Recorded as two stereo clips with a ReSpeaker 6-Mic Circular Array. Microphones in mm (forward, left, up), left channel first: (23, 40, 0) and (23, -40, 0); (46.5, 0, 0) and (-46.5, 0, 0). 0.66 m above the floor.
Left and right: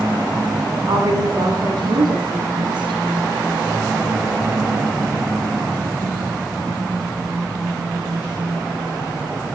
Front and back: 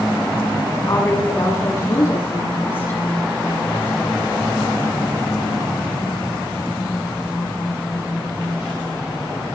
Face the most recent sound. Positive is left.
turn(degrees=-65)